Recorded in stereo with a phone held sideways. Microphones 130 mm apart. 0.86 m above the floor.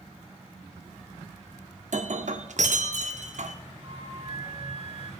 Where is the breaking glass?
65° right (ahead or behind), 0.7 m.